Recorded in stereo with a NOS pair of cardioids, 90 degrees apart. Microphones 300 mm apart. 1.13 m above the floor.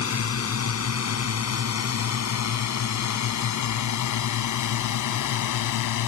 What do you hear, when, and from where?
0.0 s a drone: 45° left; by 6.1 s 75° left